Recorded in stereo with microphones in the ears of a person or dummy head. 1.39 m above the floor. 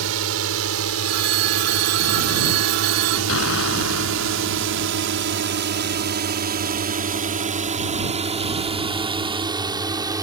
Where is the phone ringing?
55° right (ahead or behind).